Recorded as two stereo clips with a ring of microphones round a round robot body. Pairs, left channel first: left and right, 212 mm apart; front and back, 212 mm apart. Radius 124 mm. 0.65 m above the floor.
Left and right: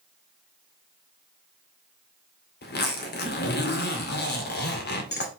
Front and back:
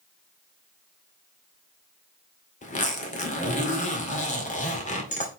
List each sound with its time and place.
2.6 s a zipper: 55° left, 2 m